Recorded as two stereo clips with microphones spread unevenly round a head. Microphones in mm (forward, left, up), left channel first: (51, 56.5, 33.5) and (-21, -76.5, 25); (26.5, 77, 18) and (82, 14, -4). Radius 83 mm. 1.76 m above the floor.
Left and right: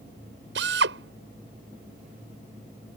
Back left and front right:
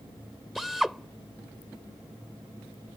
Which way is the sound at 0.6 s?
140° right.